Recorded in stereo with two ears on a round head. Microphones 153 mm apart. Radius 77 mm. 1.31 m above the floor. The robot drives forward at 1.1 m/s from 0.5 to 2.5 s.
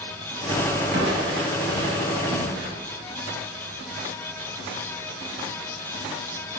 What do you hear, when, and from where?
0.9 s crushing: 60° right (ahead or behind), 2 m; by 2.7 s 70° right (ahead or behind), 1.9 m